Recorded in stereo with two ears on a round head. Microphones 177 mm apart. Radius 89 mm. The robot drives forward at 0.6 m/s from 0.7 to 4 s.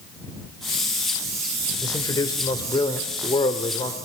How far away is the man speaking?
About 1.8 m.